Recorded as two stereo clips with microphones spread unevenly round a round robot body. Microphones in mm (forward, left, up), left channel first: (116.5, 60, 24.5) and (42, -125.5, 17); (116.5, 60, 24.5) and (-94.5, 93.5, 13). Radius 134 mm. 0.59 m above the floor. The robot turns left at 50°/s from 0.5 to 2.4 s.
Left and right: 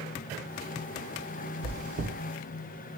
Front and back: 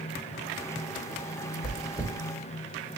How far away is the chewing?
About 1.7 m.